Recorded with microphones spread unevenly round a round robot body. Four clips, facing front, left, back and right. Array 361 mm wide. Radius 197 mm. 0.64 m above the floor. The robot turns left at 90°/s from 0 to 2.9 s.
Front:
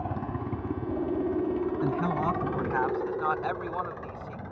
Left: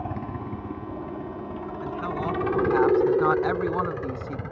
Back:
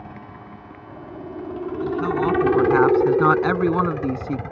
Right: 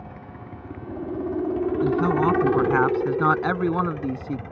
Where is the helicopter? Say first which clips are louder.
Left 8 dB, front 6 dB; 60° left; by 4.5 s 165° left.